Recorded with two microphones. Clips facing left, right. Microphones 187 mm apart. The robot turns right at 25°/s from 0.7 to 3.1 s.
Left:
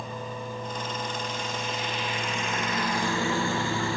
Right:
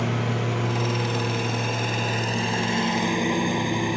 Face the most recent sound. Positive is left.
turn(degrees=-20)